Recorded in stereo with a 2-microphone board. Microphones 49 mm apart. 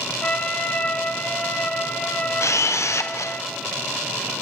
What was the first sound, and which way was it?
A trumpet, 35° left (ahead or behind).